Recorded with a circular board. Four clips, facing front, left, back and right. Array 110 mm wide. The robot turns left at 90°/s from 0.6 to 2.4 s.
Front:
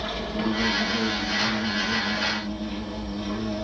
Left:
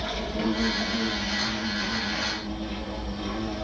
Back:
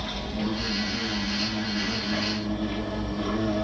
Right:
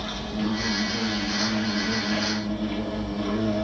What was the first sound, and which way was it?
An insect, 15° left.